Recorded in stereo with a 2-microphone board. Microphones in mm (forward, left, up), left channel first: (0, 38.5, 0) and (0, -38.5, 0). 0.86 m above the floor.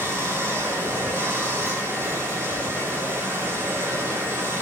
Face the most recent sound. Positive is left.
turn(degrees=-30)  # may be behind; listen again after turning